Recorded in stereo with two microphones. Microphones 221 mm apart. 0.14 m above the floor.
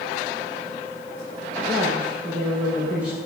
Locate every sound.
1.6 s a woman speaking: 5° right (ahead or behind), 5.5 m